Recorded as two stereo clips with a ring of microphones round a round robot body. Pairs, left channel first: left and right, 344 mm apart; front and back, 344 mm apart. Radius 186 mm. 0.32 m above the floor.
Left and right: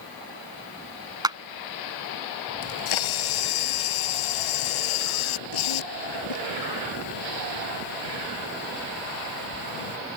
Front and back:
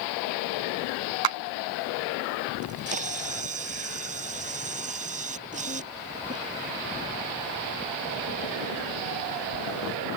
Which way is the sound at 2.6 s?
110° left.